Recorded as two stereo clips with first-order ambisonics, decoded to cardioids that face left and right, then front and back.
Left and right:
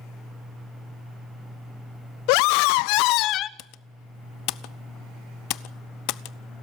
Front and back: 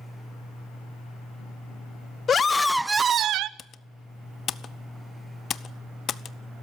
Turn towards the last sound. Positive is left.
turn(degrees=60)